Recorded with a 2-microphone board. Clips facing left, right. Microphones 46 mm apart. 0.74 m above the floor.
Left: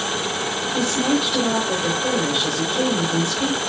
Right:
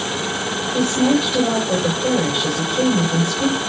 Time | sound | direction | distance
0.7 | a woman speaking | 5° right (ahead or behind) | 2 m